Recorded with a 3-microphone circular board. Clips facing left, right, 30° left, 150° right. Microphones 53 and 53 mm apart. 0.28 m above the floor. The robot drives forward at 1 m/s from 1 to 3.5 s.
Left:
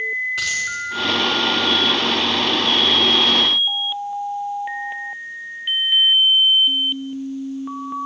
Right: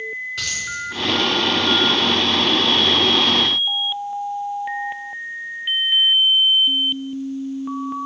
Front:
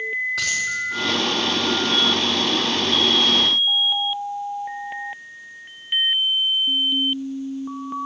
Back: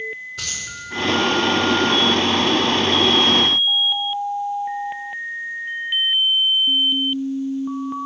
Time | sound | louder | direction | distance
0.4 | a dropped coin | left 5 dB, front 8 dB | 10° left | 5 m